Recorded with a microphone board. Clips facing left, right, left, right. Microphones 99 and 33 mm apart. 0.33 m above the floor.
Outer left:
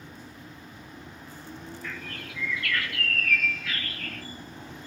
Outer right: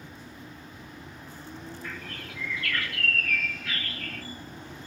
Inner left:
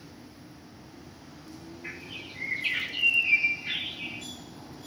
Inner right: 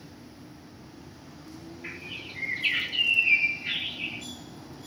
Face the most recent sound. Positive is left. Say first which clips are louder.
# outer left 1 dB, inner right 2 dB
turn(degrees=-40)  # may be behind; listen again after turning